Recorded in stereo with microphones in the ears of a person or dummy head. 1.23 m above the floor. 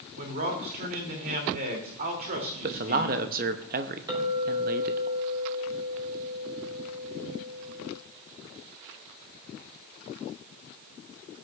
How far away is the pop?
No pop in this recording.